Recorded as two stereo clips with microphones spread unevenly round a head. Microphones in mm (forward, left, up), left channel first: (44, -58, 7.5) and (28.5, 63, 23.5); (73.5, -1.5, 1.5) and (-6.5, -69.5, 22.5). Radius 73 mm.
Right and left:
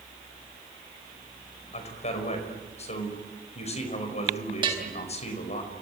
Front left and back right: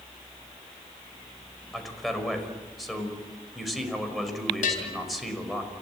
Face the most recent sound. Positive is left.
turn(degrees=50)